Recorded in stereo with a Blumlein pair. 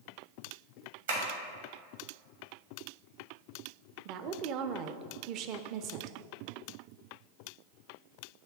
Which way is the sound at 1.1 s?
60° right.